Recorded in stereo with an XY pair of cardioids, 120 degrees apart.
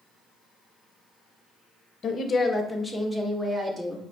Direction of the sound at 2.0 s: 40° left.